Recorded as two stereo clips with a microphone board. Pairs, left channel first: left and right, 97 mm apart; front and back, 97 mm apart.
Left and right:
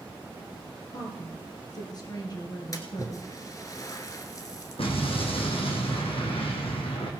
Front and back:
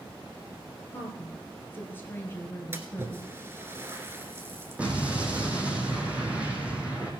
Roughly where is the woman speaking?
Ahead left.